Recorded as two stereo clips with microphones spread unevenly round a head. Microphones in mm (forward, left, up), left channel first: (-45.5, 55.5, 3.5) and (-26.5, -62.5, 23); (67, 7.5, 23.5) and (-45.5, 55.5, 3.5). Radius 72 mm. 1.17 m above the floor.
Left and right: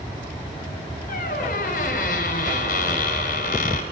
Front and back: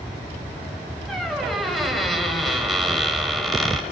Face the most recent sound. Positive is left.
turn(degrees=65)